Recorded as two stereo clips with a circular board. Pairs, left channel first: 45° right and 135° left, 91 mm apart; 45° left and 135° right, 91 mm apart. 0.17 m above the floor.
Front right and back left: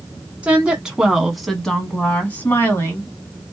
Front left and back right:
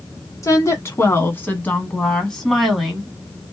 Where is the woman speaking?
70° left, 1.4 m; by 3.1 s 60° right, 1.3 m.